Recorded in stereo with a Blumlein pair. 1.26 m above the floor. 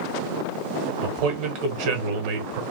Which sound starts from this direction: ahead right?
A man speaking, at 1.0 s.